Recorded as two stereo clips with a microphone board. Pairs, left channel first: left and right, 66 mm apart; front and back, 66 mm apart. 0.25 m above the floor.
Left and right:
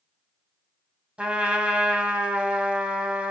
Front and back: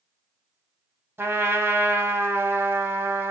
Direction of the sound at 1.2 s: 150° right.